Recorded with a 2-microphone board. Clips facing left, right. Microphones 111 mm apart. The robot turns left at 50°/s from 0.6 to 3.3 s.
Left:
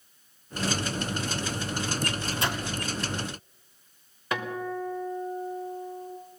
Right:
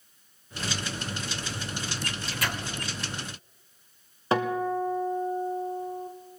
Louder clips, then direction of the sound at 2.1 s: Left 3 dB; 30° left (ahead or behind).